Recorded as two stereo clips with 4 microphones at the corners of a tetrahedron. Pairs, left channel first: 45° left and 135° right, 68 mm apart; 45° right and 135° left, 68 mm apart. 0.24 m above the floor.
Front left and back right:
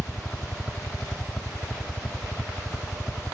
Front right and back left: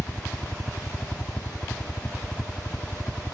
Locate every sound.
0.0 s a helicopter: 15° right; by 3.4 s 40° right